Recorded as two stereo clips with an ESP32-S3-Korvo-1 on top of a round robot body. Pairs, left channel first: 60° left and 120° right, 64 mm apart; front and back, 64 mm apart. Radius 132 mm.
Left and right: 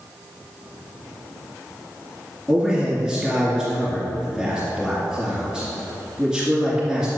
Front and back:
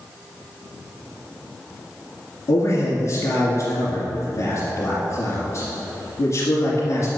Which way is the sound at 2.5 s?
40° right.